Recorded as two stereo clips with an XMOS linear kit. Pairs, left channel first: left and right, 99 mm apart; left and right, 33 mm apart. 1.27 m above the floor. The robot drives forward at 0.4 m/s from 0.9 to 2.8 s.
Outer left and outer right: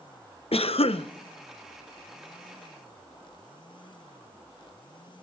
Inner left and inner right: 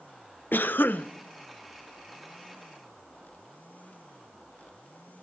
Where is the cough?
80° left, 0.5 m.